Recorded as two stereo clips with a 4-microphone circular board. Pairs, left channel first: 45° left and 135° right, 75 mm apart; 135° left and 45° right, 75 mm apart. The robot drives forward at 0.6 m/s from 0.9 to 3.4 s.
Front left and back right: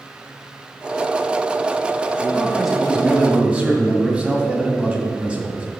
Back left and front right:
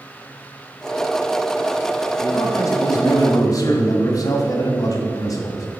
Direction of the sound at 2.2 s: 135° left.